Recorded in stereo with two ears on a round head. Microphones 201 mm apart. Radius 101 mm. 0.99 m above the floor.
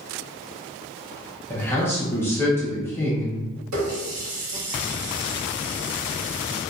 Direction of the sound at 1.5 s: 10° left (ahead or behind).